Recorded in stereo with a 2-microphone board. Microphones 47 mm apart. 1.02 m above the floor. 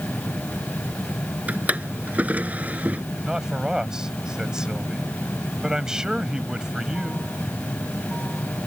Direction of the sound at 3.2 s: 15° right (ahead or behind).